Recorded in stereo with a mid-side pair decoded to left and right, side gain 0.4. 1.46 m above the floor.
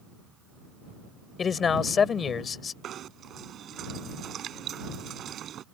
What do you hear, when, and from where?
1.4 s a man speaking: 55° left
2.8 s knocking: 65° right